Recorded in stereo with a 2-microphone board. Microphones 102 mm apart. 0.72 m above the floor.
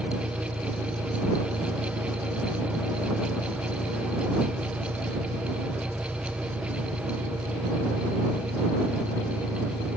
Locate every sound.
0.0 s an engine running: 40° right (ahead or behind)